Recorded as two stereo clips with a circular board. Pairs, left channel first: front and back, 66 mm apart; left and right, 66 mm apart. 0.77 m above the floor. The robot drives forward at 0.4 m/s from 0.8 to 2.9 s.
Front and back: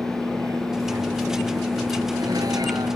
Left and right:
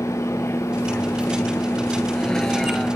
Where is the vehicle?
150° left; by 3.0 s straight behind.